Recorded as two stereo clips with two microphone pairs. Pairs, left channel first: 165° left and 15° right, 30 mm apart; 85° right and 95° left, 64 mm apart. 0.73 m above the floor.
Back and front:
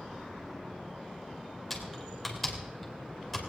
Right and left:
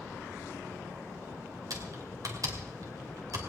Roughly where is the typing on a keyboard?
Left.